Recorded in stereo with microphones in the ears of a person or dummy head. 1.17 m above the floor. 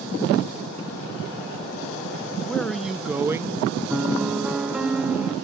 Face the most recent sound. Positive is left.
turn(degrees=0)  # may be behind; listen again after turning